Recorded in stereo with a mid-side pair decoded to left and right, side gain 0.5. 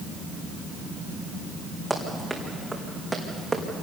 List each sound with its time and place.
1.9 s running footsteps: 5° right, 4.5 m; by 3.6 s 15° right, 4 m